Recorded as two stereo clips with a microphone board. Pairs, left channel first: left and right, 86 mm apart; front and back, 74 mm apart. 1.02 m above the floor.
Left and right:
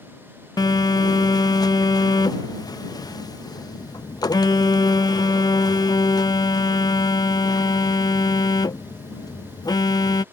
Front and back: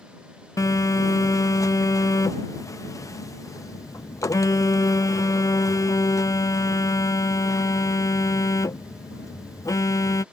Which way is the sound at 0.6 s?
45° left.